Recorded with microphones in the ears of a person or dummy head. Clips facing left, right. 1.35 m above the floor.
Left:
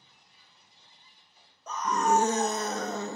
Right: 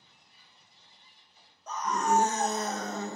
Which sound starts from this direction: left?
A scream, at 1.7 s.